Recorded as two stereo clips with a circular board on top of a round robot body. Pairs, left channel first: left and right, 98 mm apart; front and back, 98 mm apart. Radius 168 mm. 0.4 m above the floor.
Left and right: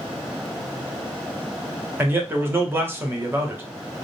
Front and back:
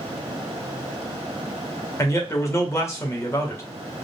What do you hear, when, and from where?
2.0 s a man speaking: 40° right, 1.5 m